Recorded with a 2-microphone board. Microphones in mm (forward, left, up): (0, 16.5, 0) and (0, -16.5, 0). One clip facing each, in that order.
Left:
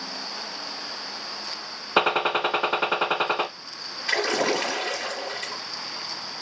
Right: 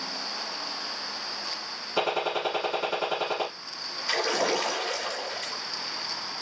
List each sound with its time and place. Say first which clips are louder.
2.0 s a gunshot: left 6 dB; 50° left (ahead or behind), 1.4 m
4.1 s a splash: left 3 dB; 45° left (ahead or behind), 4.5 m